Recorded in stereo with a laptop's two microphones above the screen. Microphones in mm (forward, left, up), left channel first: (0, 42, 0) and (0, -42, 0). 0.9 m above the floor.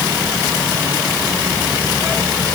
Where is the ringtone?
I don't hear a ringtone.